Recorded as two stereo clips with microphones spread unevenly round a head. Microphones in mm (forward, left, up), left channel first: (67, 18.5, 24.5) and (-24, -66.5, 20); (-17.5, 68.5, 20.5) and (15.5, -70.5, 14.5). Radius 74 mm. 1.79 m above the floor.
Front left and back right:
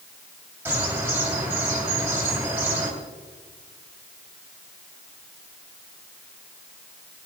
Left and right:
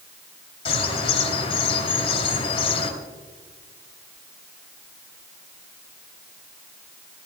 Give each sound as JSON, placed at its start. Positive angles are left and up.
{"t": 0.7, "sound": "a bird", "azimuth_deg": 145, "distance_m": 2.5}